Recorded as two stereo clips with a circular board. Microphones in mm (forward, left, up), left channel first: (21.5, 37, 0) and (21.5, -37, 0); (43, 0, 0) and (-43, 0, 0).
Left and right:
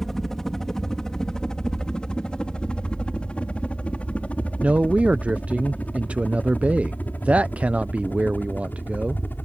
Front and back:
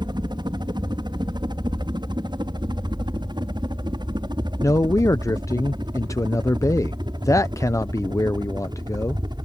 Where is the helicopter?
175° left; by 9.5 s 150° left.